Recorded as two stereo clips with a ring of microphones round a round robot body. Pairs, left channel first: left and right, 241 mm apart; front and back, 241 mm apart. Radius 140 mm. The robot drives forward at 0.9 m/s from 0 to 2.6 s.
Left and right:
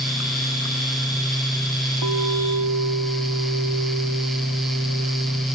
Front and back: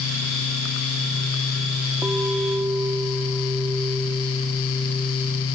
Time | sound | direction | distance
2.0 | a clink | 95° right | ?